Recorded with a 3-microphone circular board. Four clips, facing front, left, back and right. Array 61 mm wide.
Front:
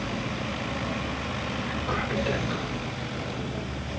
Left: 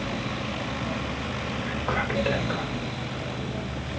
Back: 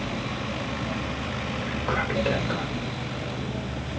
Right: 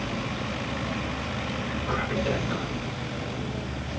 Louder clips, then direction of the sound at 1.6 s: Left 3 dB, back 4 dB; 135° left.